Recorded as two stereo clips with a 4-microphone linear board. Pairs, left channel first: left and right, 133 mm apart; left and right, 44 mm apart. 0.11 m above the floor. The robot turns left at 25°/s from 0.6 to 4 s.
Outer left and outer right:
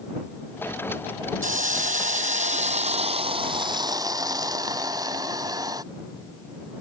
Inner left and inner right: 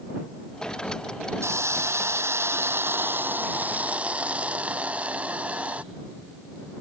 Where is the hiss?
85° right; by 5.8 s 150° right.